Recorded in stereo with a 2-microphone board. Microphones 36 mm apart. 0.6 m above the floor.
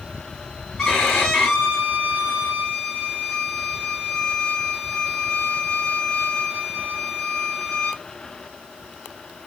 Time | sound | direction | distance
0.8 | a violin | 15° left (ahead or behind) | 4.5 m